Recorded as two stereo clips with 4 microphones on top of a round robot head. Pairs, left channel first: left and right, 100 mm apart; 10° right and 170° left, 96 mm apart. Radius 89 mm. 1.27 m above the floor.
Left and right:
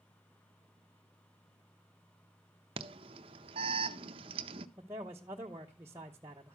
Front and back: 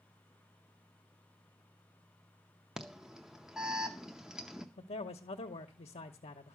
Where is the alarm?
105° right, 0.5 m.